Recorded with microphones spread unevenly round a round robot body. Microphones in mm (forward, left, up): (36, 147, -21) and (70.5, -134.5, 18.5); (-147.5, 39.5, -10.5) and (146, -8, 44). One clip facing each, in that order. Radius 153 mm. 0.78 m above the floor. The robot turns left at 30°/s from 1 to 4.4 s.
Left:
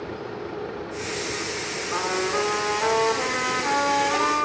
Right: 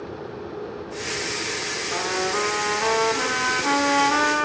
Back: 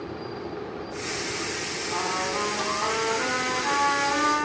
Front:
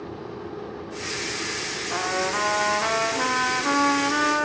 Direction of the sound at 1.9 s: 15° left.